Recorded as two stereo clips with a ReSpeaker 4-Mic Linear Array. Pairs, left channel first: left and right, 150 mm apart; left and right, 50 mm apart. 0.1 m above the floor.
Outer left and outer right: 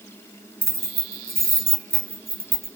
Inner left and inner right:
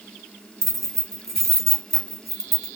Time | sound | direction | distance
0.6 | keys jangling | 5° left (ahead or behind) | 1.0 m